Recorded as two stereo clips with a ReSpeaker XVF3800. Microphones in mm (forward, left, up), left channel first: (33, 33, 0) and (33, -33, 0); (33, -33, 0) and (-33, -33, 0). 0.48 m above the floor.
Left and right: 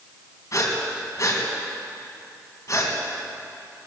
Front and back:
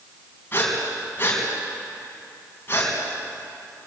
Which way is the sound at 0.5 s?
55° left.